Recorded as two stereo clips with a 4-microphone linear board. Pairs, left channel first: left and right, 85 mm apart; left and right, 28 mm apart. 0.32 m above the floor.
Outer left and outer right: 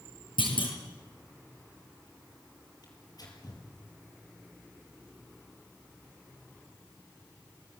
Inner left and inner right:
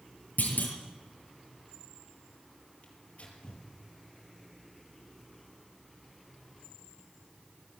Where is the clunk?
75° left (ahead or behind), 5.5 m.